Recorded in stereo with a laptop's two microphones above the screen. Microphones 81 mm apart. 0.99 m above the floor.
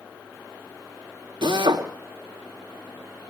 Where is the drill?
75° right (ahead or behind), 2.5 m.